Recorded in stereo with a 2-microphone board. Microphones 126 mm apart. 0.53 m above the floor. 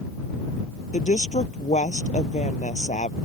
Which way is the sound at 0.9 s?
70° left (ahead or behind).